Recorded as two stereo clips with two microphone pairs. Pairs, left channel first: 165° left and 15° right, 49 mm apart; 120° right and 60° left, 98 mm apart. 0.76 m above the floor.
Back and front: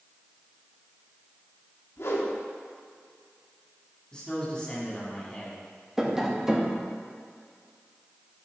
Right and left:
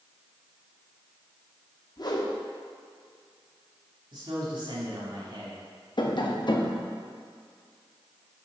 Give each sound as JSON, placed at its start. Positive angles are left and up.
{"t": 2.0, "sound": "a whoosh", "azimuth_deg": -165, "distance_m": 0.8}
{"t": 4.1, "sound": "a man speaking", "azimuth_deg": 90, "distance_m": 1.9}
{"t": 6.0, "sound": "tapping", "azimuth_deg": -90, "distance_m": 0.6}